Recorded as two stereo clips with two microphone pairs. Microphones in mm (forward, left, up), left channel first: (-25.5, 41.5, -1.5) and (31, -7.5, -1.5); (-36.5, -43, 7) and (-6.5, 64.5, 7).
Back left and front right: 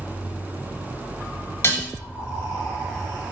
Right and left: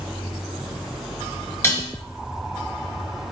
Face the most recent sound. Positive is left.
turn(degrees=-175)